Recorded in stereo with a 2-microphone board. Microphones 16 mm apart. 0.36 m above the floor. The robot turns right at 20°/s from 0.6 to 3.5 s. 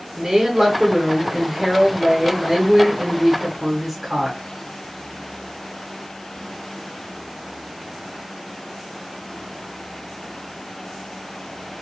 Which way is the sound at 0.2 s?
25° right (ahead or behind).